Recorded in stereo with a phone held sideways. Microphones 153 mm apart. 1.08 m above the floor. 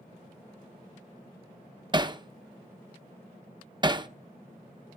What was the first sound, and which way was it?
Hammering, 30° right (ahead or behind).